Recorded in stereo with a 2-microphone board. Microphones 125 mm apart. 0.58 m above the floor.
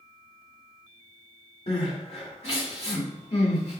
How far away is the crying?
About 1.7 m.